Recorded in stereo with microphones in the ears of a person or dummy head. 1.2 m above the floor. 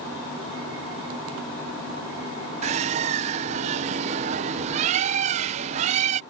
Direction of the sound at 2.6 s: 40° right (ahead or behind).